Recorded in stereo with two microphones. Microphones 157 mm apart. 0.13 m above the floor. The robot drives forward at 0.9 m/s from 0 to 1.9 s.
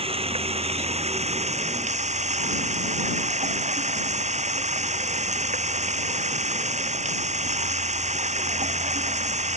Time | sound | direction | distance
0.0 | running water | 40° right (ahead or behind) | ?